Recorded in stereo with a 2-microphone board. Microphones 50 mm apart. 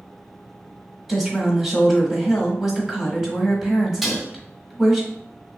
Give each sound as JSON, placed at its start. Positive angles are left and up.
{"t": 1.1, "sound": "a woman speaking", "side_deg": -5, "distance_m": 1.1}
{"t": 4.0, "sound": "dishes clattering", "side_deg": -5, "distance_m": 0.7}